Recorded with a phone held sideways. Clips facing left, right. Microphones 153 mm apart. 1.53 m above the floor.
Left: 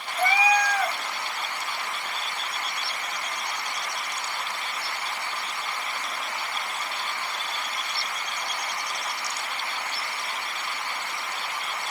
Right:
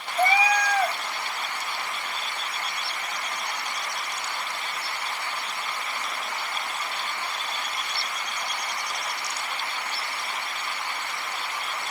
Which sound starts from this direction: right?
A cat meowing, at 0.2 s.